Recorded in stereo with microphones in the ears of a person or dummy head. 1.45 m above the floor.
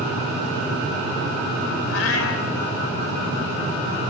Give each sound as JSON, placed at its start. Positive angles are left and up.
{"t": 1.9, "sound": "a cat meowing", "side_deg": 75, "distance_m": 2.5}